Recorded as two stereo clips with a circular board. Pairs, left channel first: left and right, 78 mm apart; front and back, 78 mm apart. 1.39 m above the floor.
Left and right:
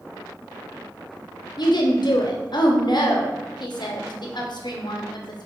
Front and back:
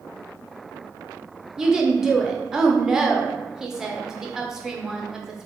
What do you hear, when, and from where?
1.6 s a woman speaking: 95° left, 0.7 m